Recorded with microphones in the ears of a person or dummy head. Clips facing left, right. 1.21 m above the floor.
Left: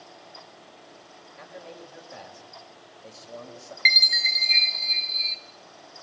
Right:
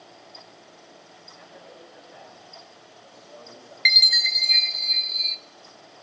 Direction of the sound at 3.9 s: Centre (ahead or behind).